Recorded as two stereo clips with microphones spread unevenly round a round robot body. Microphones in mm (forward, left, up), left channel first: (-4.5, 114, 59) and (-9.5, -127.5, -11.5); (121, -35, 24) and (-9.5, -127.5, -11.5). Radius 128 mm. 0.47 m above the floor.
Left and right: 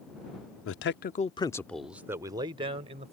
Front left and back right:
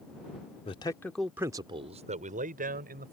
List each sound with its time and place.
0.7 s a man speaking: 90° left; by 3.1 s 145° right